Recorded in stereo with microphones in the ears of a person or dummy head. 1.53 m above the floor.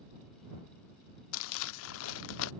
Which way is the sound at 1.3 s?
85° left.